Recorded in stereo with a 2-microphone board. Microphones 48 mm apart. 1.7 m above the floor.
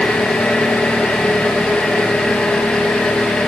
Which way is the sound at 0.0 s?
25° left (ahead or behind).